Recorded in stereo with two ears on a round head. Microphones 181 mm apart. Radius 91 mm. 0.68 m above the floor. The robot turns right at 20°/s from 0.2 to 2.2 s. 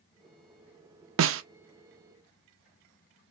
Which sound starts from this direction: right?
A snare drum, at 1.2 s.